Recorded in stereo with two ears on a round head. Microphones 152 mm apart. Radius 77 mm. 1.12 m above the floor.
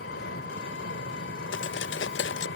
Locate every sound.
0.0 s an engine running: 80° left
1.5 s cutlery clinking: 75° left (ahead or behind)